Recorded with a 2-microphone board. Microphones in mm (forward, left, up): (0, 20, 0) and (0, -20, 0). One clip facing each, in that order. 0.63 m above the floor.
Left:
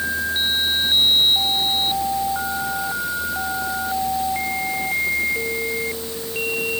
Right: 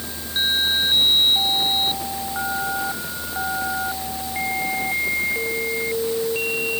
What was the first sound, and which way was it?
Only background noise.